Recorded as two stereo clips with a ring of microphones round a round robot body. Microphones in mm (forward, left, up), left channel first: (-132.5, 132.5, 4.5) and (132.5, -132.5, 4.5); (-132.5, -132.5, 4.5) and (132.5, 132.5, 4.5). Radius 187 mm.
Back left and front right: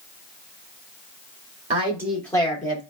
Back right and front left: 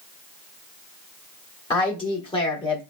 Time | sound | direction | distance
1.7 | a woman speaking | 80° right | 0.8 m